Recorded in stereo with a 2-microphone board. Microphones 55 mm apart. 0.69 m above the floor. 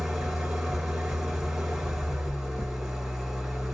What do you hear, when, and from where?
0.0 s an engine running: 15° right (ahead or behind), 1.6 m
2.3 s chewing: 30° left (ahead or behind), 1.0 m